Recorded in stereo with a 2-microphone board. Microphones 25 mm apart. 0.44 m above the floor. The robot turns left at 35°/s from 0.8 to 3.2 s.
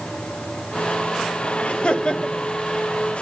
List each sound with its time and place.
1.6 s laughter: 70° left, 1.9 m; by 2.5 s 35° left, 1.9 m